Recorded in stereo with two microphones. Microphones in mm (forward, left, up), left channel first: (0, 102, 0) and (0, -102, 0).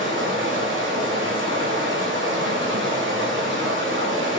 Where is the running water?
75° right (ahead or behind), 1.1 m.